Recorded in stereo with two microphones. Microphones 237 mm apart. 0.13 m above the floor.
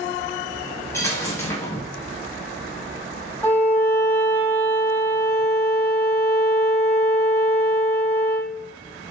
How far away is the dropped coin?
About 3 m.